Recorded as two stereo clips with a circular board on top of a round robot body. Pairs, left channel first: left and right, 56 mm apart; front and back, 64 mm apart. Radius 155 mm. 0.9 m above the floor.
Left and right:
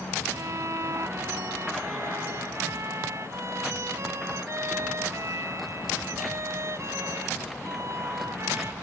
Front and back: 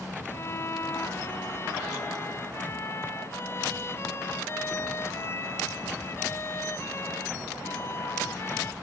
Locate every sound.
0.3 s a violin: 50° right